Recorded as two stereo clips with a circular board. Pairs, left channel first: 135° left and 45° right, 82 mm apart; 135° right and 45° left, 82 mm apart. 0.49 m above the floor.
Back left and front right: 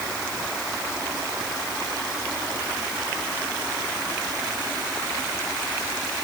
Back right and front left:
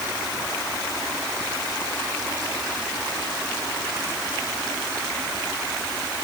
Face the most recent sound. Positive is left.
No sound to turn to.